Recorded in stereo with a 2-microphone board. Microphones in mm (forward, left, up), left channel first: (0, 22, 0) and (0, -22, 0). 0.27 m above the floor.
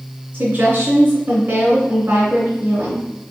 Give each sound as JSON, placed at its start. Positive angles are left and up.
{"t": 0.3, "sound": "a woman speaking", "side_deg": -60, "distance_m": 2.5}